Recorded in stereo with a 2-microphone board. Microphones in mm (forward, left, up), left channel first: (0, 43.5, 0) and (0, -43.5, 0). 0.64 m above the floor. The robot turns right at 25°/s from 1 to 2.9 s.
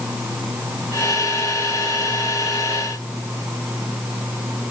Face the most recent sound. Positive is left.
No sound to turn to.